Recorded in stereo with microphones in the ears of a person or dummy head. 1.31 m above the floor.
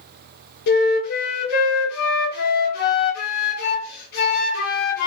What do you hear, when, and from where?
0.7 s a flute: 50° left (ahead or behind), 0.9 m